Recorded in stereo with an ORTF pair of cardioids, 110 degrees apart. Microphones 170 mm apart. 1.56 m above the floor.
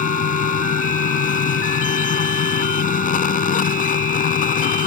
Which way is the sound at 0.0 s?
55° left.